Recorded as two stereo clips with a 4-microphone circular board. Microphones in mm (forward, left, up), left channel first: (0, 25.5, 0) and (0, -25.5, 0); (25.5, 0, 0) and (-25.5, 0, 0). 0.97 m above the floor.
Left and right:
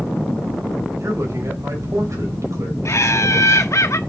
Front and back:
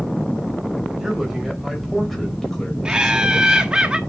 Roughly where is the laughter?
Left.